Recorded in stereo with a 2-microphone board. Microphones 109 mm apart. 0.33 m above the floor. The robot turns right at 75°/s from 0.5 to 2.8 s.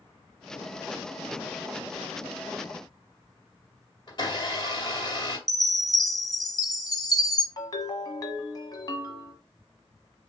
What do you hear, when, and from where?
4.1 s a blender: 40° left (ahead or behind), 2.0 m
5.5 s a chime: 35° left (ahead or behind), 0.9 m
7.6 s a ringtone: 40° left (ahead or behind), 1.1 m